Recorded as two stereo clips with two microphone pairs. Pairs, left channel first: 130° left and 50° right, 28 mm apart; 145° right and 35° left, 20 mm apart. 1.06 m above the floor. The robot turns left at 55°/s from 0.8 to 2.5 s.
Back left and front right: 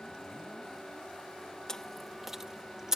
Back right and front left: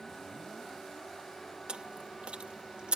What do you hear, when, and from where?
1.7 s chewing: 65° left; by 3.0 s 20° left